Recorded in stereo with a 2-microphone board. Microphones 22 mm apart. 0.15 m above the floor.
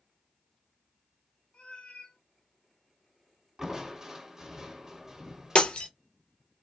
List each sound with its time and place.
1.5 s a cat meowing: 65° left (ahead or behind), 1.4 m
3.6 s crushing: 25° right (ahead or behind), 1.7 m
5.5 s breaking glass: 60° left (ahead or behind), 1.0 m